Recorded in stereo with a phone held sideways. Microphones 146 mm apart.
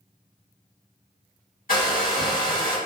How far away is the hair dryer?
About 1.6 m.